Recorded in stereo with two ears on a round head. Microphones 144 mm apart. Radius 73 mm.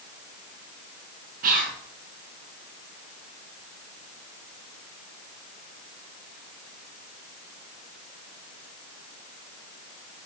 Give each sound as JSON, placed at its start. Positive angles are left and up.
{"t": 1.4, "sound": "whispering", "side_deg": -60, "distance_m": 1.7}